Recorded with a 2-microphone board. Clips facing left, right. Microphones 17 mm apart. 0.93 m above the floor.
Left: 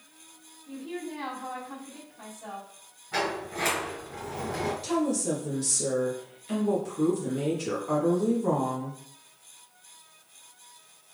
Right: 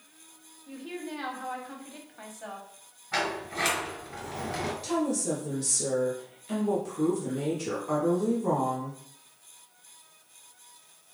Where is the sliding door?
30° right (ahead or behind), 2 m.